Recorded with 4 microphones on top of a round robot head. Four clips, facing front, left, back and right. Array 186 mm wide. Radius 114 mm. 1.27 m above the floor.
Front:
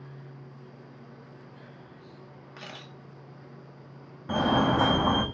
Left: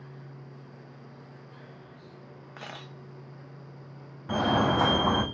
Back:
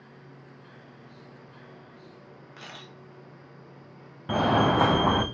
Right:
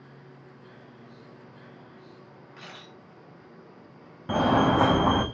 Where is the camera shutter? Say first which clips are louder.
Left 4 dB, front 1 dB; 75° left, 0.7 m.